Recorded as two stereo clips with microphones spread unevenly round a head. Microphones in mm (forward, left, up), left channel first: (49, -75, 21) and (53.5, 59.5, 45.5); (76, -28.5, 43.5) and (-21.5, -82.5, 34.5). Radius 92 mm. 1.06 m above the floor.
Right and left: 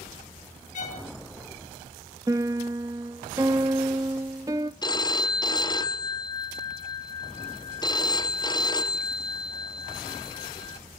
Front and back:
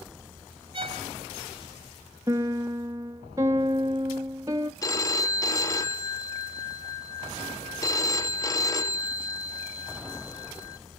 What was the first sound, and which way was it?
A violin, 120° right.